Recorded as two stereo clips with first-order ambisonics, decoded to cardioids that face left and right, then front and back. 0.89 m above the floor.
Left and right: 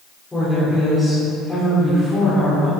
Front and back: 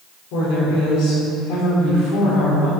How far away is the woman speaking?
About 2 m.